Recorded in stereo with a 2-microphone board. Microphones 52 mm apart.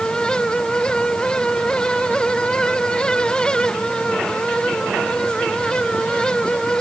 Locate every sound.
Only background noise.